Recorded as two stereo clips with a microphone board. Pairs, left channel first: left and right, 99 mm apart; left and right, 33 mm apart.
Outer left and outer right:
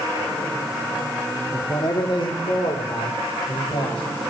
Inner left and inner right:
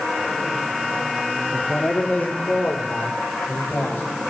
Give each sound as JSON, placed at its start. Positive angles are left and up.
{"t": 1.5, "sound": "a man speaking", "side_deg": 40, "distance_m": 1.3}